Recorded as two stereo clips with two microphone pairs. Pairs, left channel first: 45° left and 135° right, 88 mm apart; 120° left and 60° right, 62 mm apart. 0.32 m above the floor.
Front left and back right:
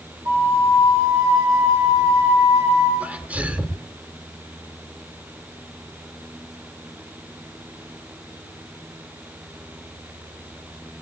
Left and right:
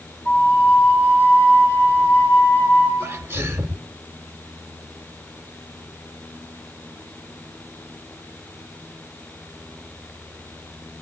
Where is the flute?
170° left, 9.5 m.